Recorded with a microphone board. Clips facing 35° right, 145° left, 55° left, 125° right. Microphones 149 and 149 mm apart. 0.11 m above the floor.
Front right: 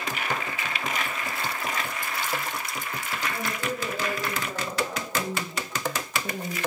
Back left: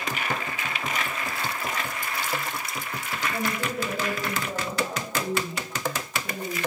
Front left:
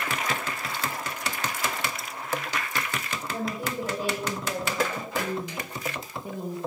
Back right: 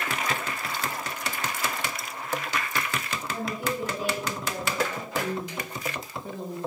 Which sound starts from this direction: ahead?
A woman speaking, at 5.1 s.